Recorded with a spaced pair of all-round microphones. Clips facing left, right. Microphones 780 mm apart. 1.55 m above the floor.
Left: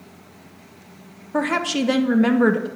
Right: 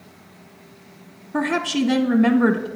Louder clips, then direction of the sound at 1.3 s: Right 1 dB; 15° left (ahead or behind).